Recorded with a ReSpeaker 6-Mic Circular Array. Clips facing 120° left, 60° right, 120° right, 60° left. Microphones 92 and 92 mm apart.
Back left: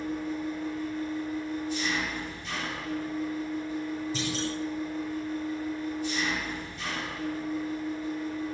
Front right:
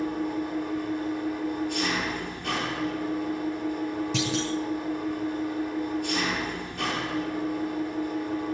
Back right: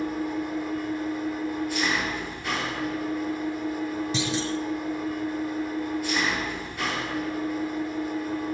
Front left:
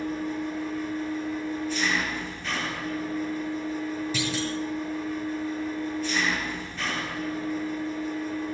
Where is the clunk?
55° right, 5.5 m.